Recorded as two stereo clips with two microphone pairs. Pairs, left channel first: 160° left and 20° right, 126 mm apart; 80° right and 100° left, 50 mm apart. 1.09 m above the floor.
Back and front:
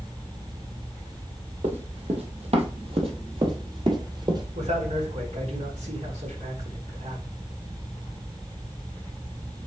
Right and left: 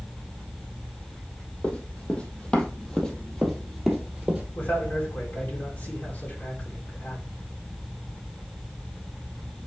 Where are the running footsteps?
30° right, 2 m; by 4.5 s 25° left, 1.8 m.